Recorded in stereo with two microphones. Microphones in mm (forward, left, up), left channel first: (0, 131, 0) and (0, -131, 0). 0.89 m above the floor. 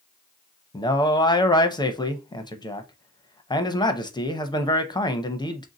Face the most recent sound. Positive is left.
turn(degrees=15)  # may be behind; listen again after turning